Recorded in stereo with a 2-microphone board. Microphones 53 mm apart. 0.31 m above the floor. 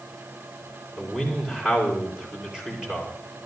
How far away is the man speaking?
About 6 m.